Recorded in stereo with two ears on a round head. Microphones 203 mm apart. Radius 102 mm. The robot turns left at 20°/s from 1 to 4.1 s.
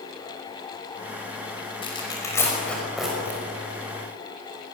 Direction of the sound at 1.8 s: 25° left (ahead or behind).